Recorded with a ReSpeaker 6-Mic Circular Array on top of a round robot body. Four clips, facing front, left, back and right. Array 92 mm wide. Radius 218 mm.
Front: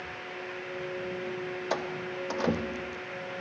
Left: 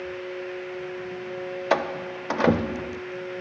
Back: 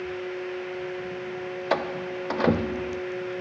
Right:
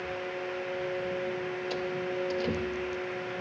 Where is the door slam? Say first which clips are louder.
Left 10 dB, back 8 dB; 110° left.